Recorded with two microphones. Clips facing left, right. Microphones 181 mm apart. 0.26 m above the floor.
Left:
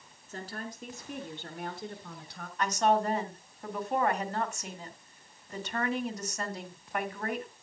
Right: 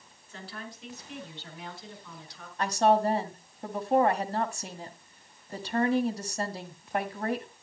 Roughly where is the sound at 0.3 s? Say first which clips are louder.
Left 3 dB; left.